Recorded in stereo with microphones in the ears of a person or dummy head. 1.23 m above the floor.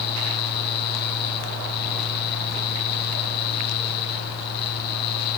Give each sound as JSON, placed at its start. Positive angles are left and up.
{"t": 0.0, "sound": "a fan", "side_deg": 55, "distance_m": 1.7}